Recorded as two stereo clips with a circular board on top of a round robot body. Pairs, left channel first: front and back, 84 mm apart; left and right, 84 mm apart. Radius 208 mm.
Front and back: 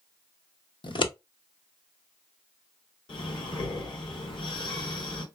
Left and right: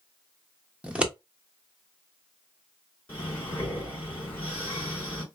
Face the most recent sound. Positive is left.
turn(degrees=25)